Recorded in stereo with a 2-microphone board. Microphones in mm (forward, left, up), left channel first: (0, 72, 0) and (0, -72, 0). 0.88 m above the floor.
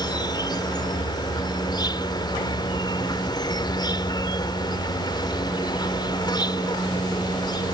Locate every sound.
0.0 s an insect: 30° left (ahead or behind)